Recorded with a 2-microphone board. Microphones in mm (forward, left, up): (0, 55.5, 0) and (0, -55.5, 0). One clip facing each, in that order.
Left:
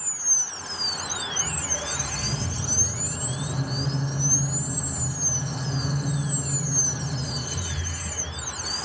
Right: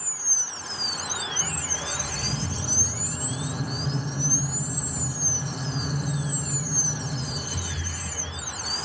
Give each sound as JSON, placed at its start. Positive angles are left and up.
{"t": 1.4, "sound": "a squeak", "side_deg": -15, "distance_m": 0.9}